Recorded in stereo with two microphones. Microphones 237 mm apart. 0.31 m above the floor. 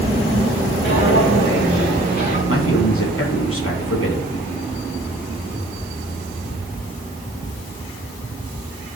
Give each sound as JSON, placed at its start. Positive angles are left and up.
{"t": 0.8, "sound": "footsteps", "side_deg": 55, "distance_m": 4.5}
{"t": 2.5, "sound": "a man speaking", "side_deg": 65, "distance_m": 3.0}